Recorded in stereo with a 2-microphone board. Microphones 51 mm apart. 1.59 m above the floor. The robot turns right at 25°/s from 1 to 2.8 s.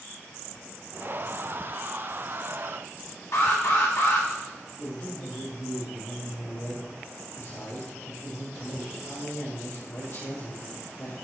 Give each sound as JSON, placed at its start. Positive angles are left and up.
{"t": 3.3, "sound": "an alarm", "side_deg": 65, "distance_m": 1.4}
{"t": 4.8, "sound": "a man speaking", "side_deg": 75, "distance_m": 3.0}